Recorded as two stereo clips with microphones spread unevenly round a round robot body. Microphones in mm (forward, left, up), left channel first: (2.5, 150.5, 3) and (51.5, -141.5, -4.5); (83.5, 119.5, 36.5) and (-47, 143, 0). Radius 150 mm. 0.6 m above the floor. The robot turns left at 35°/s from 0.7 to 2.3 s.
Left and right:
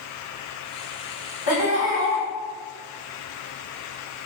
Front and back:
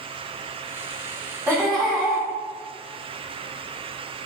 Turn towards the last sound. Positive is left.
turn(degrees=75)